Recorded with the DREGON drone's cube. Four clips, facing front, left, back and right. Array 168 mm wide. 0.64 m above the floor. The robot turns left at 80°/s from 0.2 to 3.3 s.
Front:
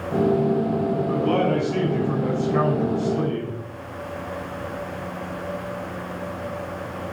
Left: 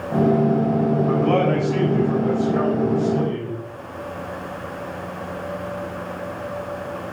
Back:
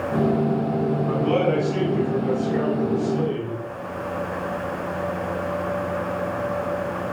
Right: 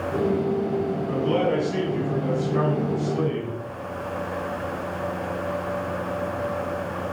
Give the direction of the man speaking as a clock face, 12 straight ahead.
8 o'clock.